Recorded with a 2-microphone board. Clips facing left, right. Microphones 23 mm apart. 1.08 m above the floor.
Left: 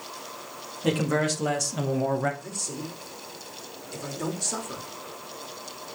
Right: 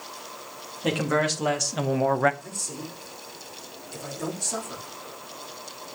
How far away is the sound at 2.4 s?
About 2.5 m.